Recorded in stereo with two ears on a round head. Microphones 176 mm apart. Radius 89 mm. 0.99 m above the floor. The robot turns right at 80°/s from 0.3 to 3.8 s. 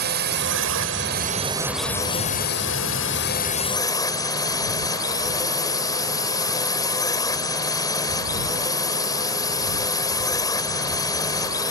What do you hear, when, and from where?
0.0 s a drone: 120° right; by 11.7 s 160° left